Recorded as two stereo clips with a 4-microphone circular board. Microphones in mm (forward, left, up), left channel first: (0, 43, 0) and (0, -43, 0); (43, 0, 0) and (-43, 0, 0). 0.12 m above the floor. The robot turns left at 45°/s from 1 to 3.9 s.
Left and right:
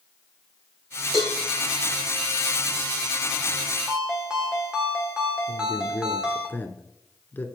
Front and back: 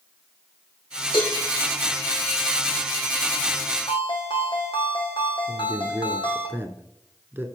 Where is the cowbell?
Straight ahead, 4 m; by 1.4 s 10° right, 4 m.